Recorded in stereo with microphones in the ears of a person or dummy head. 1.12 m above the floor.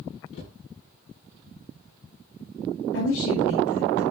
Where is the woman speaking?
85° left, 9 m.